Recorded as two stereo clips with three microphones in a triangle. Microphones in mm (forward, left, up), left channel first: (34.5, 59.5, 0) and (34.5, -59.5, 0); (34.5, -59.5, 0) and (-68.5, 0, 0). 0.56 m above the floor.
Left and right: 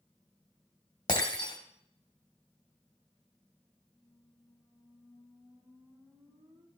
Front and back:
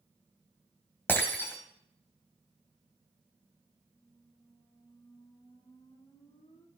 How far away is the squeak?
About 2.5 m.